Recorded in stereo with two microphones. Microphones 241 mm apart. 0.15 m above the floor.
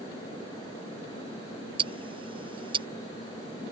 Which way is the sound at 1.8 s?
20° right (ahead or behind).